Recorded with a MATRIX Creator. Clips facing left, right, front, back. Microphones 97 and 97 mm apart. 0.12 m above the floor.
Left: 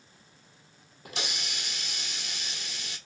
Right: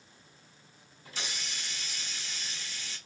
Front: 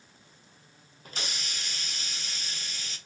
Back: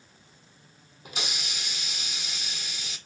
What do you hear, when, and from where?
1.1 s a hiss: 100° left, 0.8 m